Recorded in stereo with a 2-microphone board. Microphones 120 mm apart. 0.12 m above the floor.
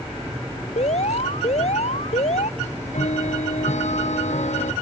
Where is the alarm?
70° left (ahead or behind).